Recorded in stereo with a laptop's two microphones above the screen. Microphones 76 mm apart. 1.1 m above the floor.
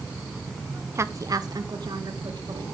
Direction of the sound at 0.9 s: 35° right (ahead or behind).